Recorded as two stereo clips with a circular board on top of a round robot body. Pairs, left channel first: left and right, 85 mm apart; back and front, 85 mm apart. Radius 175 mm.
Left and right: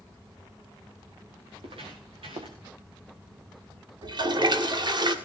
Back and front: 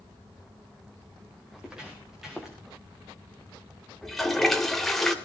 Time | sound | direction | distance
1.5 | footsteps | 80° right | 4 m
4.0 | a toilet flushing | 95° right | 2.5 m